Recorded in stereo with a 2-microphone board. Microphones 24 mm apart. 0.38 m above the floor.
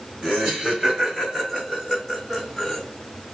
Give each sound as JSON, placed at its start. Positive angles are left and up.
{"t": 0.2, "sound": "laughter", "side_deg": -40, "distance_m": 1.9}